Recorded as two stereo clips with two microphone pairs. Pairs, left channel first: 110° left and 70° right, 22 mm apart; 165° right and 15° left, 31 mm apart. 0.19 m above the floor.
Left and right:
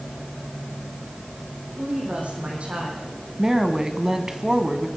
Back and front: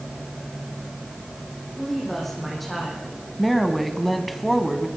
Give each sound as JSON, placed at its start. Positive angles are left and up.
{"t": 1.7, "sound": "a woman speaking", "azimuth_deg": -80, "distance_m": 8.5}
{"t": 3.4, "sound": "a woman speaking", "azimuth_deg": -75, "distance_m": 1.8}